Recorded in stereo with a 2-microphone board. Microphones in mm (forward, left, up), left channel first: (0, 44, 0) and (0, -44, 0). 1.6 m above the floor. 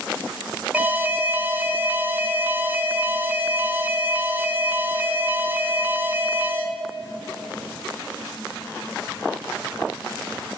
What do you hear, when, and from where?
0.7 s an alarm: 20° right (ahead or behind), 0.5 m